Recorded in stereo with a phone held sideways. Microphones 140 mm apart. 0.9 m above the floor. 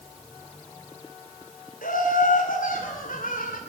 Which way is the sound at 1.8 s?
80° left.